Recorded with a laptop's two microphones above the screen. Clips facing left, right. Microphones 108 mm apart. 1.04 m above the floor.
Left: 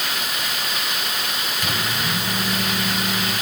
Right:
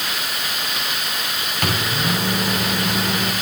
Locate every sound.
1.6 s a microwave: 60° right (ahead or behind), 2 m